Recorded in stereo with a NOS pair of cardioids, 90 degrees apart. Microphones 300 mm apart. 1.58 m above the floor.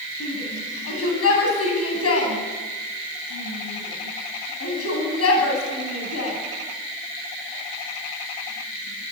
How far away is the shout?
About 9.5 m.